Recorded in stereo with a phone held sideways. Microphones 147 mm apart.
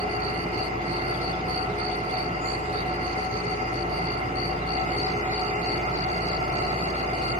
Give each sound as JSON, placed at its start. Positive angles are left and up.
{"t": 0.0, "sound": "an engine running", "side_deg": -50, "distance_m": 7.5}